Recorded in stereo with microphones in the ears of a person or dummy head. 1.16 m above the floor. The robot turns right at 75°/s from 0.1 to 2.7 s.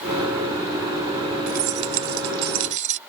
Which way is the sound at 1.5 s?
135° right.